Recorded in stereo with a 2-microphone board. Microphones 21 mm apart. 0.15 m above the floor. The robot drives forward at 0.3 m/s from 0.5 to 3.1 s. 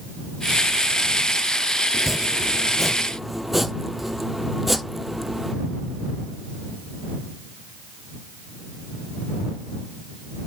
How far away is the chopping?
About 0.6 m.